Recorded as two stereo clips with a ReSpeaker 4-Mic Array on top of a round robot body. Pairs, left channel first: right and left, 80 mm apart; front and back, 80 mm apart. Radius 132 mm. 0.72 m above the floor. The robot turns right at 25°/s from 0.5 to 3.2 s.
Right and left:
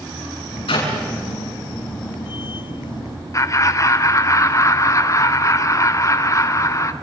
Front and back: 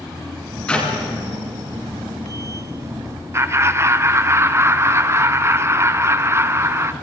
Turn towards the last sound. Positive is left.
turn(degrees=-130)